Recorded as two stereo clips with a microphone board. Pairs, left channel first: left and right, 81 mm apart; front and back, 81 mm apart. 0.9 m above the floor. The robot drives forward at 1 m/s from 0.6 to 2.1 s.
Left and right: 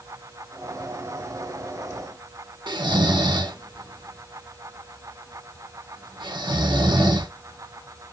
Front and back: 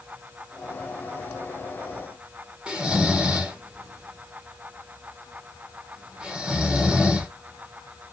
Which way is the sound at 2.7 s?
100° right.